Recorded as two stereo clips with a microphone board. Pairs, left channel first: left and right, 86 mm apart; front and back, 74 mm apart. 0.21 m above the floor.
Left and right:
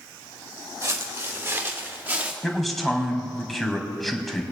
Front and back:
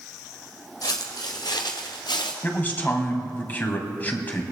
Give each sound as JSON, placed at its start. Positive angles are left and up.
{"t": 0.8, "sound": "footsteps", "azimuth_deg": -35, "distance_m": 3.0}
{"t": 2.4, "sound": "a man speaking", "azimuth_deg": 5, "distance_m": 1.6}